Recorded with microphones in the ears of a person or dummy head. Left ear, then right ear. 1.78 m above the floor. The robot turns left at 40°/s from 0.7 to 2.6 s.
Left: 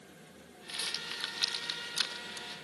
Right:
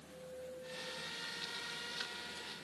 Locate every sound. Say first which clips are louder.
0.7 s a rattle: left 10 dB; 65° left (ahead or behind); by 2.5 s 5° left (ahead or behind)